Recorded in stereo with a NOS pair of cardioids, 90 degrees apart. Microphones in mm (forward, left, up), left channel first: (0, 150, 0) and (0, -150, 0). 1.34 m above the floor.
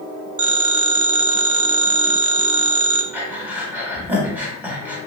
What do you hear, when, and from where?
0.4 s a phone ringing: 55° right, 0.6 m
3.1 s breathing: 5° right, 1.7 m